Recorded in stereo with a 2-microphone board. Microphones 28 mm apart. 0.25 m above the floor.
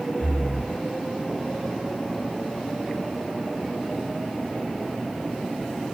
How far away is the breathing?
About 8 m.